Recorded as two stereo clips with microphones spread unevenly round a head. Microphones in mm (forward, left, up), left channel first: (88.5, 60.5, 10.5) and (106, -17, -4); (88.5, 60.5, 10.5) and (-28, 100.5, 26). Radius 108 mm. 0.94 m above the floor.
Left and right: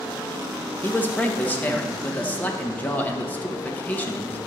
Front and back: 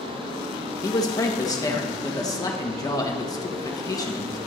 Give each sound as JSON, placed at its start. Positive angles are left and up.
{"t": 0.8, "sound": "a man speaking", "azimuth_deg": 30, "distance_m": 1.5}